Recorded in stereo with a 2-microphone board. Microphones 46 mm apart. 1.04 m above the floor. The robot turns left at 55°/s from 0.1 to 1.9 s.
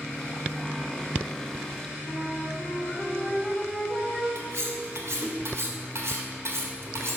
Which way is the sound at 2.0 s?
5° left (ahead or behind).